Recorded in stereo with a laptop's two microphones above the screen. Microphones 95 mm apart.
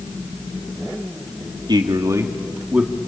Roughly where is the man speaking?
Right.